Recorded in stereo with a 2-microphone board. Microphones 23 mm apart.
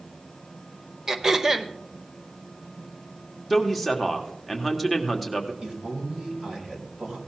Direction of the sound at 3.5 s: Centre (ahead or behind).